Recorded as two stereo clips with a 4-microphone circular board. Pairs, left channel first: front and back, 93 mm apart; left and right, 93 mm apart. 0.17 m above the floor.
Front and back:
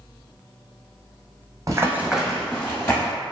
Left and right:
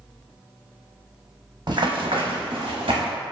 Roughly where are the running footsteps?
Behind right.